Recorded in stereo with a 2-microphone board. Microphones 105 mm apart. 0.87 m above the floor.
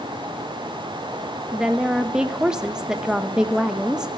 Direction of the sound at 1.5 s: 5° right (ahead or behind).